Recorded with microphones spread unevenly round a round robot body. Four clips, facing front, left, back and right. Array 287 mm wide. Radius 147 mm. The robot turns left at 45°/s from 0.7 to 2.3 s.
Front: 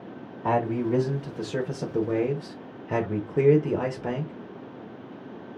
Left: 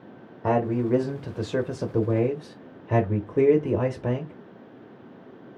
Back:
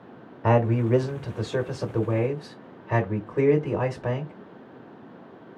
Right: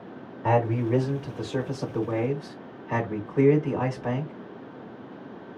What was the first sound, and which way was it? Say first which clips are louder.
A man speaking: left 1 dB, back 3 dB; 145° left.